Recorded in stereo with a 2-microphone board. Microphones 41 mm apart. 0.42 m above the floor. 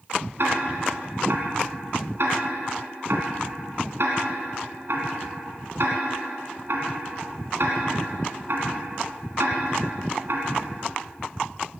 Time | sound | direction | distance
0.4 | ticking | 70° right (ahead or behind) | 2.5 m